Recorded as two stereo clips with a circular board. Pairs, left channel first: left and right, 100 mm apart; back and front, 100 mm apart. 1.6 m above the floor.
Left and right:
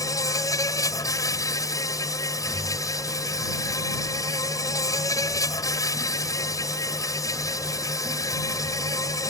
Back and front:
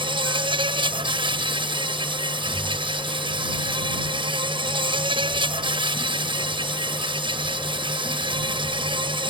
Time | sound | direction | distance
0.0 | an insect | 35° left | ?